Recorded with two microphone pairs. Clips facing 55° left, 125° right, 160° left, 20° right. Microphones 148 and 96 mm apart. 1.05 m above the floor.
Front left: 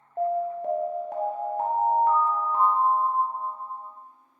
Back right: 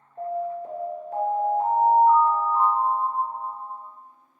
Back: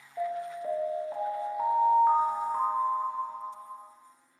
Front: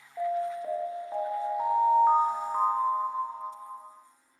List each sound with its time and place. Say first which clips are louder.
0.2 s an alarm: front left 3 dB, front 3 dB; 65° left, 0.6 m